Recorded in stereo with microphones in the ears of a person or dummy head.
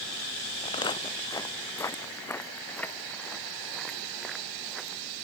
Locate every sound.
0.6 s footsteps: 25° left (ahead or behind); by 5.0 s centre (ahead or behind)